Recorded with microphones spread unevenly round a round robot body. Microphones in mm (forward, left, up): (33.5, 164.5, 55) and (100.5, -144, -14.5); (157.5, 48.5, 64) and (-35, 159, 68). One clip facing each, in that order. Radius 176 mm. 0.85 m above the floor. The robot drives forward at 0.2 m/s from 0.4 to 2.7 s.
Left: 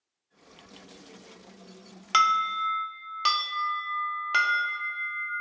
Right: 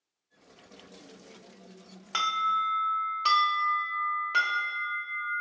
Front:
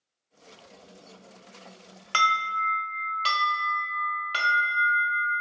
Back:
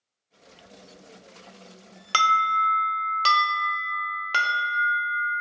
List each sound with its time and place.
2.1 s an alarm: 125° left, 0.5 m; by 5.3 s 140° left, 0.6 m